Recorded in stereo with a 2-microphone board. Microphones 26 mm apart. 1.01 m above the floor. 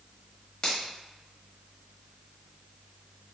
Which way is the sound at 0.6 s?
40° left (ahead or behind).